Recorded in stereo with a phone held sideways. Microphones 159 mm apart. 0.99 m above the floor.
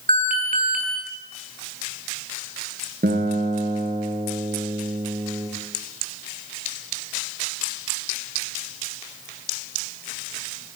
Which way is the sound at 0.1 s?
60° right (ahead or behind).